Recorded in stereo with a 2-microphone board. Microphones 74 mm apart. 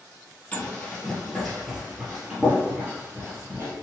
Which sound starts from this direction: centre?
Running footsteps, at 0.5 s.